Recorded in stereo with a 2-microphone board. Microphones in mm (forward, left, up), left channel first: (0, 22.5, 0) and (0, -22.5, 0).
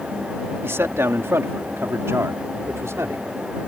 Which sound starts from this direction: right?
A man speaking, at 0.6 s.